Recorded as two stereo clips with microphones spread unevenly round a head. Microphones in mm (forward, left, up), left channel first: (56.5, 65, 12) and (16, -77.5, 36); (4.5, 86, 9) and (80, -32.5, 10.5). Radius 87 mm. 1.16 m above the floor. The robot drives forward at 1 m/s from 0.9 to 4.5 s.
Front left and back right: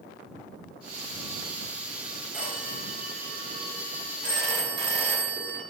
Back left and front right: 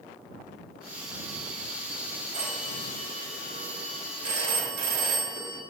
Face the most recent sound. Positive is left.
turn(degrees=-55)